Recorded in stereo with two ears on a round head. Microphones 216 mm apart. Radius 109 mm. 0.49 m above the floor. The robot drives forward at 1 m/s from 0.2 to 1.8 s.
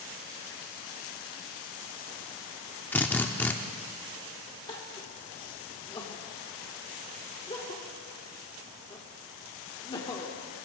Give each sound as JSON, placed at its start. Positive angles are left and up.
{"t": 2.9, "sound": "a drill", "side_deg": 10, "distance_m": 0.7}
{"t": 4.7, "sound": "crying", "side_deg": 20, "distance_m": 1.5}